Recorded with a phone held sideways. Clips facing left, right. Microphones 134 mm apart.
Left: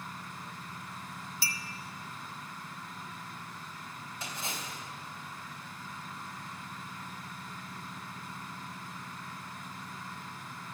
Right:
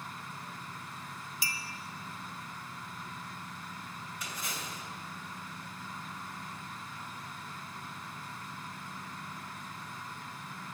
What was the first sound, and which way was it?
A clink, 15° right (ahead or behind).